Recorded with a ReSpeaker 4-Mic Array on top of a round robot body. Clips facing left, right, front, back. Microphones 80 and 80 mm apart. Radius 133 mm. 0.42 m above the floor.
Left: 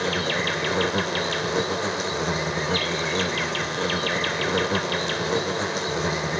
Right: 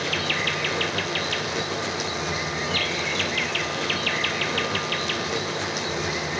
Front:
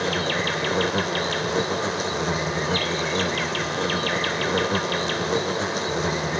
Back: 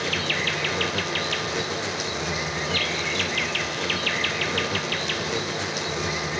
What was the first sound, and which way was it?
An insect, 45° left.